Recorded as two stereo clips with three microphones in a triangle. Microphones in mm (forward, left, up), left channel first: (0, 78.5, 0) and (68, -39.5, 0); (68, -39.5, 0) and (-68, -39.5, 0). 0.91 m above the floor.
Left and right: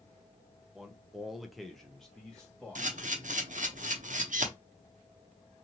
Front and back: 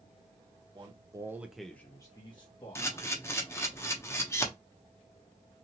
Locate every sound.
0.8 s a man speaking: 145° right, 0.7 m; by 3.8 s 35° left, 1.4 m
2.8 s a camera shutter: 70° right, 0.6 m